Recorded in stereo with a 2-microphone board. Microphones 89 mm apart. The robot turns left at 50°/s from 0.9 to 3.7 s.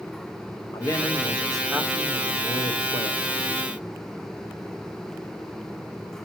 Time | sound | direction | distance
0.7 | a man speaking | 35° left | 0.9 m